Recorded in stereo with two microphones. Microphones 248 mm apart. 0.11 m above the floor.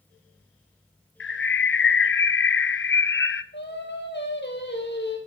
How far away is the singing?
About 2.5 m.